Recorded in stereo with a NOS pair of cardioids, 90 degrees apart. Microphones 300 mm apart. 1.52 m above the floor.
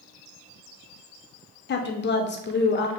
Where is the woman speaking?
35° left, 0.6 m.